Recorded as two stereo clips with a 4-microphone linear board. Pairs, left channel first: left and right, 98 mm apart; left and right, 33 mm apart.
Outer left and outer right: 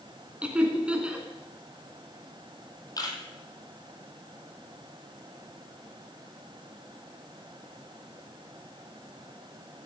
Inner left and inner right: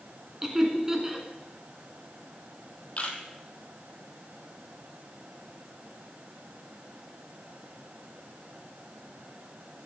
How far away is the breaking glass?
No breaking glass in this recording.